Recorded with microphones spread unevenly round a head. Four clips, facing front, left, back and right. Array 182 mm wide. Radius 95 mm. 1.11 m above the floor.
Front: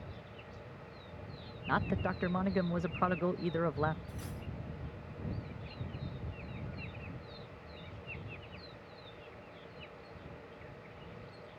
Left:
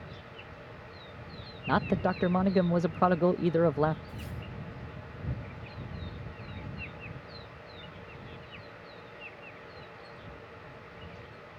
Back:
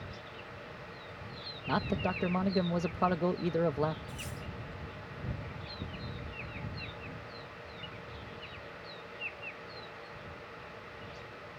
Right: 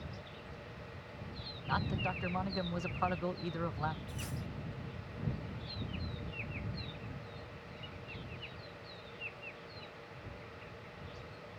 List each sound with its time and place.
1.7 s a man speaking: 105° left
4.1 s cutlery clinking: 80° right